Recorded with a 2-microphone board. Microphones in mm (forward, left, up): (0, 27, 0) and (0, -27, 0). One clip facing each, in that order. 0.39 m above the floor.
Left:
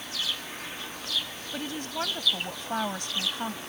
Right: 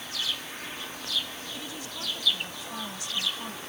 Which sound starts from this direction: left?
A woman speaking, at 1.5 s.